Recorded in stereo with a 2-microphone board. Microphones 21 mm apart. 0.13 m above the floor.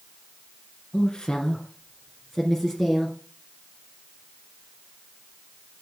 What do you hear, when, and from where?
0.9 s a woman speaking: 40° left (ahead or behind), 2.0 m; by 3.1 s 5° right (ahead or behind), 2.5 m